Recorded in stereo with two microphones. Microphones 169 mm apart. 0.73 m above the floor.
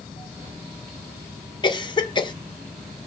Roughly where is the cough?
Left.